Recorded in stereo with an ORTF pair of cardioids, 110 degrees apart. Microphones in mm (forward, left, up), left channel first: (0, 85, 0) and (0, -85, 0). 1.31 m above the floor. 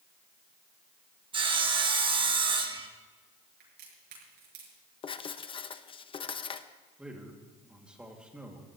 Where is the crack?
65° right, 6.5 m.